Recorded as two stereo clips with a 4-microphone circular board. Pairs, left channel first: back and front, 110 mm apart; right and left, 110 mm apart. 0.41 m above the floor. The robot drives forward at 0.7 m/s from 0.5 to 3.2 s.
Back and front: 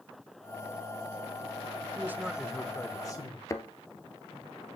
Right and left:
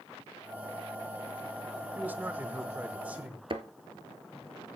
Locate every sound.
1.9 s a man speaking: 35° left, 0.8 m; by 3.4 s 160° left, 0.9 m
3.5 s a thud: 120° left, 0.9 m